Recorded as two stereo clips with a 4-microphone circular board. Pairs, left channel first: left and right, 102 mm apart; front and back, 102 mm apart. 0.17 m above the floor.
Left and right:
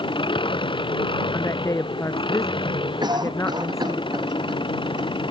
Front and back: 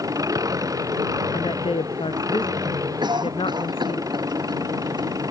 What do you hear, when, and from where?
0.0 s an engine running: 125° left
1.3 s a woman speaking: 30° left
3.0 s a cough: 135° right